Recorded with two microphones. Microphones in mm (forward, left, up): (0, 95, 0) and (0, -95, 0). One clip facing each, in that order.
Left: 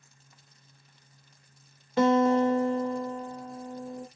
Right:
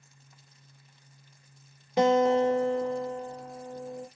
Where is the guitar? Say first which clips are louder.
Even; 15° right (ahead or behind), 1.4 m.